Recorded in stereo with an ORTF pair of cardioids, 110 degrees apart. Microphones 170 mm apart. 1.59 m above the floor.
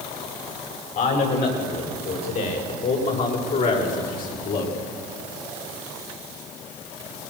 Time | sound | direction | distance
0.9 | a man speaking | 55° left | 8.5 m